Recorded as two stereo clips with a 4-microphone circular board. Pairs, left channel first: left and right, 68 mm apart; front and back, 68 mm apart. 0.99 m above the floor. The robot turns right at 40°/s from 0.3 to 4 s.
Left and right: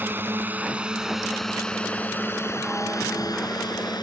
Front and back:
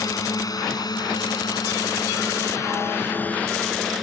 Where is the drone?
30° right; by 4.0 s 90° left.